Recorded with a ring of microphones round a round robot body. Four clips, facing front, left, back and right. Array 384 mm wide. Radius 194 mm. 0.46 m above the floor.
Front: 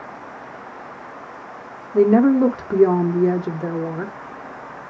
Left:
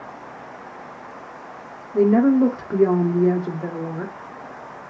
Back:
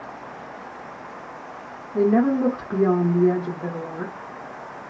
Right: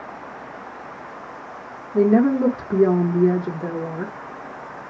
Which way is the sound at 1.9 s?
5° left.